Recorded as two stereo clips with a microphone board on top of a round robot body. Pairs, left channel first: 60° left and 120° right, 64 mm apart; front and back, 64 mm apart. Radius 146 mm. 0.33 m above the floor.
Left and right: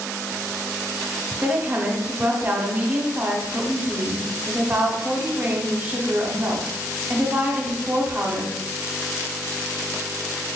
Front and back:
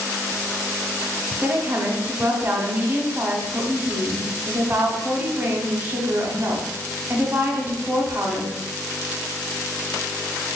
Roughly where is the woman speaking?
Behind right.